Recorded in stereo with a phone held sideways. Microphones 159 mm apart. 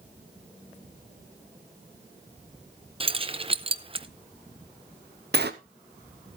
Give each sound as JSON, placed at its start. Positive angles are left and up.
{"t": 3.0, "sound": "keys jangling", "side_deg": -35, "distance_m": 0.6}
{"t": 5.3, "sound": "a sliding door", "side_deg": -80, "distance_m": 0.8}